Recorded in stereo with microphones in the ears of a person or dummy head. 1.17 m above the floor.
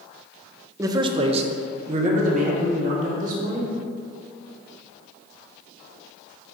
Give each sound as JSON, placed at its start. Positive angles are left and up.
{"t": 0.8, "sound": "a man speaking", "side_deg": -10, "distance_m": 0.5}